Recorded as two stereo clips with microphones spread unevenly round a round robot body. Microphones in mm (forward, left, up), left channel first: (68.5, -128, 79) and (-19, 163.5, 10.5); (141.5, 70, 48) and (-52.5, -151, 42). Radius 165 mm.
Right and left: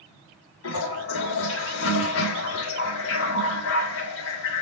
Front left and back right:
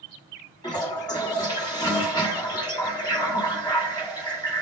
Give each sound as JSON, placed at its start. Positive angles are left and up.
{"t": 0.6, "sound": "a toilet flushing", "azimuth_deg": -30, "distance_m": 1.6}